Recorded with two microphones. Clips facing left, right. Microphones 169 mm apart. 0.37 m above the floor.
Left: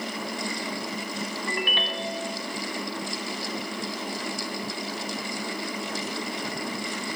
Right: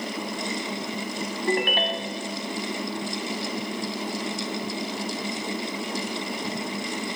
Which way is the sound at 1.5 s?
45° right (ahead or behind).